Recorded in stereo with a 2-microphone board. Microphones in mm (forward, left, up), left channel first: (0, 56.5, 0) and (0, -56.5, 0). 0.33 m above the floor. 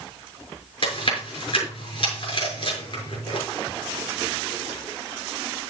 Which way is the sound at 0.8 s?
60° left (ahead or behind).